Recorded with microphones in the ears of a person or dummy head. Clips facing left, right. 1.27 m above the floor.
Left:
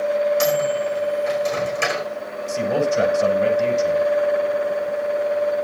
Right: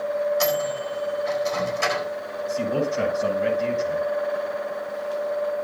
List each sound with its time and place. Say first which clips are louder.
0.4 s a microwave: left 5 dB; 40° left (ahead or behind), 4.5 m
2.5 s a man speaking: left 4 dB; 85° left, 8.5 m